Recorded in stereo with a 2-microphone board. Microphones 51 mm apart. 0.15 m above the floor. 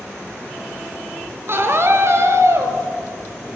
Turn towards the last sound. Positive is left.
turn(degrees=-65)  # may be behind; listen again after turning